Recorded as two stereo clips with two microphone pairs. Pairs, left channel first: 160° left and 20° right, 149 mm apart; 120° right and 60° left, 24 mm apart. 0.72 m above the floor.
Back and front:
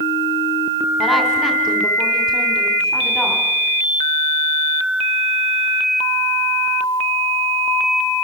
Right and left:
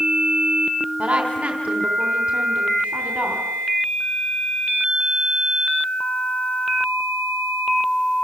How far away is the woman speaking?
About 3 m.